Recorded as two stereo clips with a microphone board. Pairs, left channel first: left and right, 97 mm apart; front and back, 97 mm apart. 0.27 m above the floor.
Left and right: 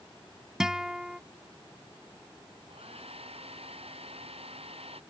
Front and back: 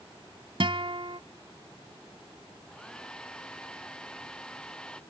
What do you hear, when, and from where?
0.6 s a guitar: 175° right
2.7 s a hair dryer: 80° right